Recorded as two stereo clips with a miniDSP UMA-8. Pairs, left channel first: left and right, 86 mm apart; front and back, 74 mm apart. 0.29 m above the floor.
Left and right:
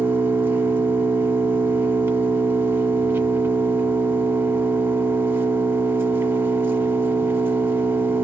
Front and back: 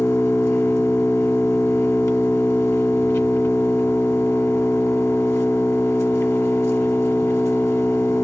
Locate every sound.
0.0 s an engine running: 40° right, 0.9 m